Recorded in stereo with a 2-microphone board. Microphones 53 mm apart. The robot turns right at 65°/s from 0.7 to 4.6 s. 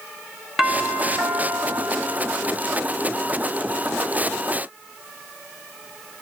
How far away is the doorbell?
About 0.9 m.